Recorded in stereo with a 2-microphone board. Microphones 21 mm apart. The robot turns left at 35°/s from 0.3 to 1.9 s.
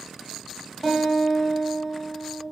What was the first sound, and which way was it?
A guitar, 15° left.